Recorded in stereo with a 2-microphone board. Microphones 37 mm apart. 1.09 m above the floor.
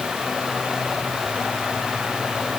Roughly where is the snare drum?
I don't hear a snare drum.